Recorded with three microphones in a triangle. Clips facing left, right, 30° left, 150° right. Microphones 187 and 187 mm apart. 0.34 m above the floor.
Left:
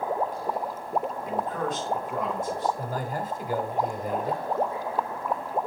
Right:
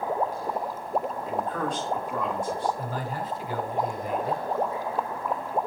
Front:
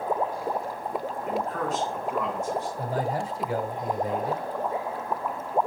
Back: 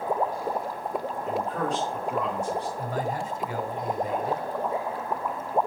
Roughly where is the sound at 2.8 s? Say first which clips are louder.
Left 1 dB, front 1 dB; left.